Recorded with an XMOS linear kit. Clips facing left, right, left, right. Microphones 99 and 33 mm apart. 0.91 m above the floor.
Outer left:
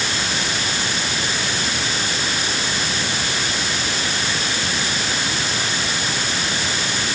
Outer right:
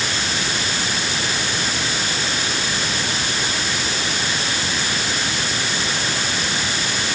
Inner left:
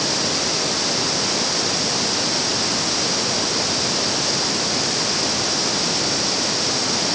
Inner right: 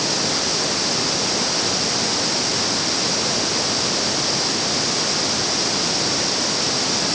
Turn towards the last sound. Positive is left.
No sound to turn to.